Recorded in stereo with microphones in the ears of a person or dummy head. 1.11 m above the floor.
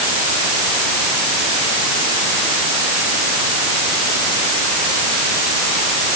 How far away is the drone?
I don't hear a drone.